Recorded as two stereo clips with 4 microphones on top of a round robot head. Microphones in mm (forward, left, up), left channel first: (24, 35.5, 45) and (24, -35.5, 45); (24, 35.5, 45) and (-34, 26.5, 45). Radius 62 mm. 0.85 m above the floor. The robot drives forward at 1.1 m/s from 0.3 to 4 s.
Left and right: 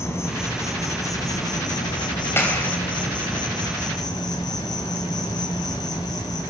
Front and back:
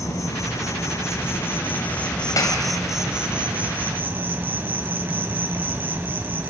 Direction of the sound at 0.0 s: 40° left.